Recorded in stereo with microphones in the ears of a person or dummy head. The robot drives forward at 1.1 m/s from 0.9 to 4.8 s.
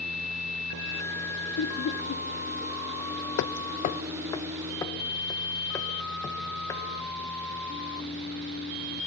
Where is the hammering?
60° left (ahead or behind), 0.6 m; by 6.8 s 20° left (ahead or behind), 1.6 m.